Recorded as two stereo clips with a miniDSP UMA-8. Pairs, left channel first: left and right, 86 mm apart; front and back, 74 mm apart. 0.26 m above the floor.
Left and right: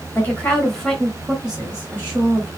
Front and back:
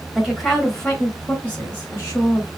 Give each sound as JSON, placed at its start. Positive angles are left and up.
{"t": 0.1, "sound": "a woman speaking", "azimuth_deg": 110, "distance_m": 1.3}